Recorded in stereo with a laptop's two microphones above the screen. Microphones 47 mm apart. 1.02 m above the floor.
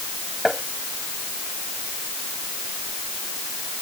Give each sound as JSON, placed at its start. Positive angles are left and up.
{"t": 0.5, "sound": "tapping", "side_deg": 0}